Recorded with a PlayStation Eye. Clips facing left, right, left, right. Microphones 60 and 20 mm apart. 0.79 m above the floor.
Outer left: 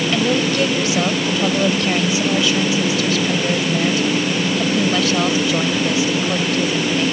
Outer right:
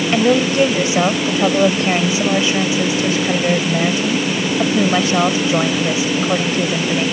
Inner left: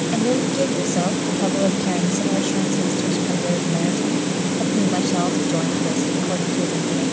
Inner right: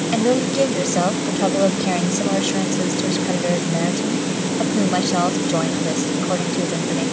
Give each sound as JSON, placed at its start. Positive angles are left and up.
{"t": 0.1, "sound": "a woman speaking", "side_deg": -25}